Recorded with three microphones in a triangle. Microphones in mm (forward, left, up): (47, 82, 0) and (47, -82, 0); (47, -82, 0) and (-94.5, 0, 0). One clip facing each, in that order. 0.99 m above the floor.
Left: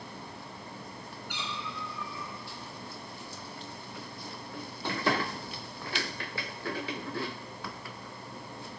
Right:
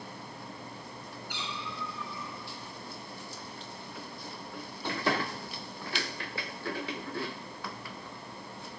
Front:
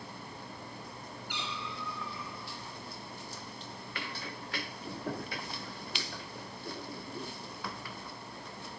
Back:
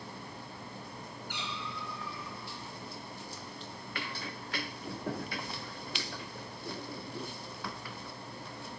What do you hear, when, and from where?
1.3 s a cat meowing: 110° left, 3.5 m